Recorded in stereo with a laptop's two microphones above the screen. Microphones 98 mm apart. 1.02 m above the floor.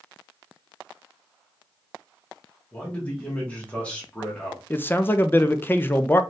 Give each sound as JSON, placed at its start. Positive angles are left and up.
{"t": 2.7, "sound": "a man speaking", "side_deg": 15, "distance_m": 1.4}
{"t": 4.7, "sound": "a man speaking", "side_deg": 20, "distance_m": 0.5}